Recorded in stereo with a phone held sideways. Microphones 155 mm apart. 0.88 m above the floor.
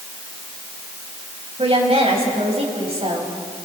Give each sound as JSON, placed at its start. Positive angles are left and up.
{"t": 1.6, "sound": "a woman speaking", "side_deg": -45, "distance_m": 4.0}